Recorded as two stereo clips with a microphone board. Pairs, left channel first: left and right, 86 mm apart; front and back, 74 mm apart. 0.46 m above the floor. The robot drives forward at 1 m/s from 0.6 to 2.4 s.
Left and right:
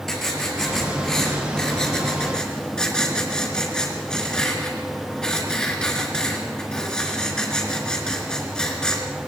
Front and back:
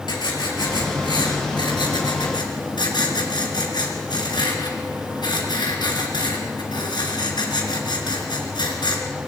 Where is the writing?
5° left, 5.5 m; by 9.0 s 10° left, 3.5 m.